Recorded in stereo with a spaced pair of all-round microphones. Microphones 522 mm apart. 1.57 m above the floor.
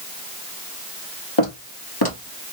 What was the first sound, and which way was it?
Footsteps, 60° left (ahead or behind).